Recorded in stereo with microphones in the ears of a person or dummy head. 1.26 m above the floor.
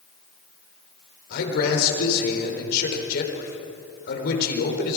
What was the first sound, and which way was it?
A man speaking, 55° left (ahead or behind).